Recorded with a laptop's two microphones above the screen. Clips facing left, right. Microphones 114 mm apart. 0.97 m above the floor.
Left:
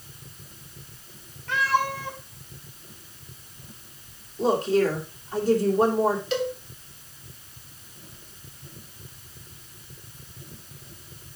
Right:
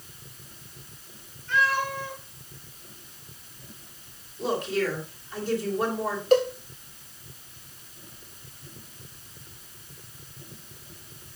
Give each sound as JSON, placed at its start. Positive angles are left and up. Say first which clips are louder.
{"t": 1.5, "sound": "a cat meowing", "louder": "left 2 dB", "side_deg": 85, "distance_m": 4.0}
{"t": 4.4, "sound": "a woman speaking", "louder": "left 6 dB", "side_deg": 40, "distance_m": 2.5}
{"t": 6.3, "sound": "a cowbell", "louder": "right 6 dB", "side_deg": -45, "distance_m": 1.6}